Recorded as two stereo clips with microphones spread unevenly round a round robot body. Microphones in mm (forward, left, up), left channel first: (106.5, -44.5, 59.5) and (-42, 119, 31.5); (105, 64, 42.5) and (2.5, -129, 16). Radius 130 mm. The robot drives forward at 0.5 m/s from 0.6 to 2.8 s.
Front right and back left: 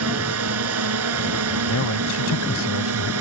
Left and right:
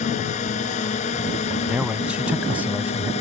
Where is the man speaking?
30° right; by 3.1 s 35° right.